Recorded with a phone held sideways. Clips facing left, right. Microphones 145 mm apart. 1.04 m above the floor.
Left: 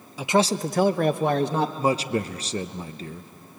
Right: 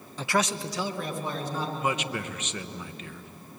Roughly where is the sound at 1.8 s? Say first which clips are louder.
Left 6 dB; left.